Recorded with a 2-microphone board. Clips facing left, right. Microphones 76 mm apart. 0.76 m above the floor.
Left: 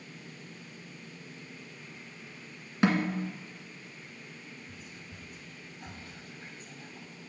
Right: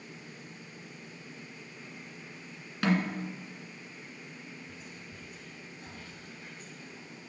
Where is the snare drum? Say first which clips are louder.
Left 2 dB; 25° left (ahead or behind), 1.7 m.